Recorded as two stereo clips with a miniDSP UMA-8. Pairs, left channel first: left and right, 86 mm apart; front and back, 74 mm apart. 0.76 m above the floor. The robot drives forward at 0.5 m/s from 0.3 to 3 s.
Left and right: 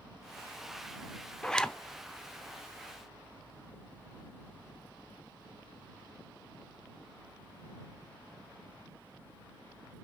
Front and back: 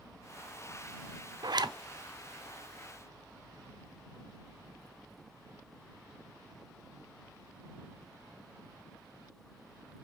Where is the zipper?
170° left, 0.5 m.